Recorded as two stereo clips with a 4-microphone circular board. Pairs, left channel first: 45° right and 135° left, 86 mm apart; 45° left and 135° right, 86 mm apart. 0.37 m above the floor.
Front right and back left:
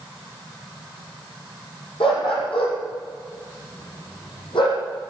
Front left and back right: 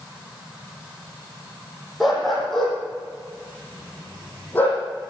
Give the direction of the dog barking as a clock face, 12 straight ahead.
2 o'clock.